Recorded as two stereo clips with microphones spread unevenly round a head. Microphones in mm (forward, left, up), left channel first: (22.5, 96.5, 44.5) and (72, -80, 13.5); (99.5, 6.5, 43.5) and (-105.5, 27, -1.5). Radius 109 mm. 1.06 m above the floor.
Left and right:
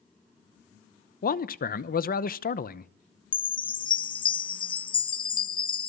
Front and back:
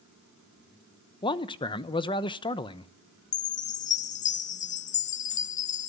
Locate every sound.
1.2 s a man speaking: 65° left, 1.0 m
3.3 s a chime: 45° left, 0.6 m